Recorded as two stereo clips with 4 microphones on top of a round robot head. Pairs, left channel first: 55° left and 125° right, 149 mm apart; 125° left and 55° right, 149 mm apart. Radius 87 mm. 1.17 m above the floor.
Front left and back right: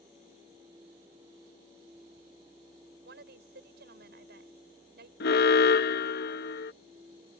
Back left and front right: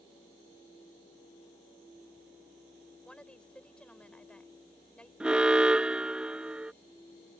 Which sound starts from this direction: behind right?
A woman speaking, at 3.0 s.